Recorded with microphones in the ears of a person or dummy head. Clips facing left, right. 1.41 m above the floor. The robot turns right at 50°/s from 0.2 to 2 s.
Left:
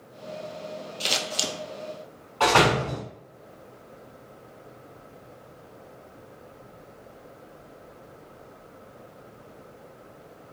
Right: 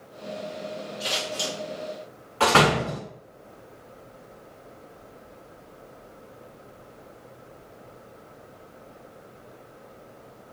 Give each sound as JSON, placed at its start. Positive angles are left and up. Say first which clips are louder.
{"t": 1.0, "sound": "scissors", "louder": "even", "side_deg": 35, "distance_m": 0.5}
{"t": 2.4, "sound": "a door slam", "louder": "even", "side_deg": -25, "distance_m": 1.2}